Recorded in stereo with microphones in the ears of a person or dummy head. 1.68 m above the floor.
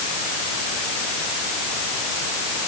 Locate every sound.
Only background noise.